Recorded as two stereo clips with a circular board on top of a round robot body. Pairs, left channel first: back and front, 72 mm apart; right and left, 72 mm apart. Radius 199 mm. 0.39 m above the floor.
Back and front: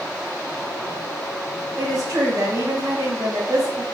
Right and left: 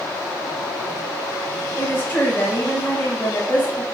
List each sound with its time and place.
1.8 s a woman speaking: 50° right, 1.1 m